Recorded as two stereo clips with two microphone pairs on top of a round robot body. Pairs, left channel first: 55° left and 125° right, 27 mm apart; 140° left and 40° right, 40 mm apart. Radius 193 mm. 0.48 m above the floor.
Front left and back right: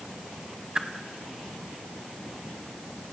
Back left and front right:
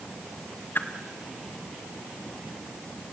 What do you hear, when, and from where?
0.8 s a whoosh: 170° left, 2 m